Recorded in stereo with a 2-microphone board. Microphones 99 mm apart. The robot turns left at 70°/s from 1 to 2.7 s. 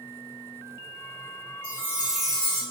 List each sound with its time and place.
1.6 s a chime: 135° right, 1.4 m; by 2.6 s 155° left, 1.4 m